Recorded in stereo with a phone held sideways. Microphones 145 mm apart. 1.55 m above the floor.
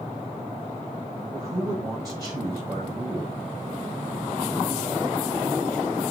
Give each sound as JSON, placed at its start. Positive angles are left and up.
{"t": 1.3, "sound": "a man speaking", "side_deg": -25, "distance_m": 8.0}